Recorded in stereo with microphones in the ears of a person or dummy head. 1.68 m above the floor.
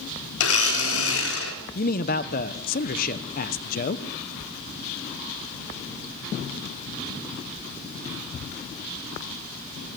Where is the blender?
80° left, 3.5 m.